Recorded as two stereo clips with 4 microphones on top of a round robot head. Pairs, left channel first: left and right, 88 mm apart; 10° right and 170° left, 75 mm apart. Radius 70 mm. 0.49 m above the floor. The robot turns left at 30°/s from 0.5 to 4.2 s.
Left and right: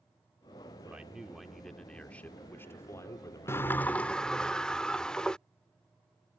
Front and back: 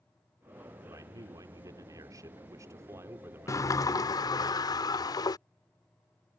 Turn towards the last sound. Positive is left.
turn(degrees=10)